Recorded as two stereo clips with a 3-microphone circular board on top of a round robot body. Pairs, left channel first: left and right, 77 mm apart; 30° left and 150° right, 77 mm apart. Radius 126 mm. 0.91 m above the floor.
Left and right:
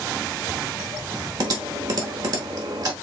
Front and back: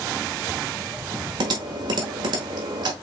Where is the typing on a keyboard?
125° right, 0.9 m.